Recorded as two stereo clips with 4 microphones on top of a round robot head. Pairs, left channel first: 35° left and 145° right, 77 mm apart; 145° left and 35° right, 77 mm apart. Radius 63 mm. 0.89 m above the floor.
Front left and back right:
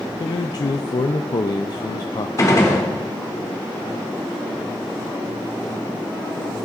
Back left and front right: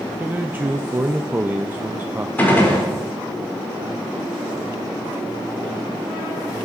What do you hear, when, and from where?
0.2 s a man speaking: 25° left, 0.5 m
2.4 s a gunshot: 80° left, 2.5 m